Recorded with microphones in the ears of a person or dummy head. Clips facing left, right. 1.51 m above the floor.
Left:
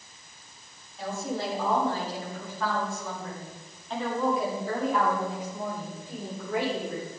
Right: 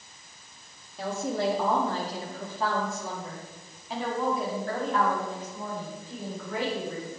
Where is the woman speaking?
60° right (ahead or behind), 4 m; by 7.1 s 30° left (ahead or behind), 7 m.